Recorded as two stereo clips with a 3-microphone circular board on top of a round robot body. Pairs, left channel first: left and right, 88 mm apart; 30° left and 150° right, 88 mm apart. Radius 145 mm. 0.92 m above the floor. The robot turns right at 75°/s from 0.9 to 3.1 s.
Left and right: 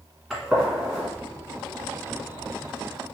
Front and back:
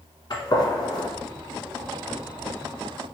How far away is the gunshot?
About 1.3 m.